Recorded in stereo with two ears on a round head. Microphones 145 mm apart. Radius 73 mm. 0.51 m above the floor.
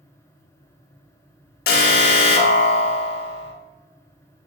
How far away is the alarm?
About 0.8 m.